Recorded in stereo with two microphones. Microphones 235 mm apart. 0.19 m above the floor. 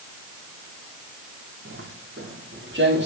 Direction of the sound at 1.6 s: 60° right (ahead or behind).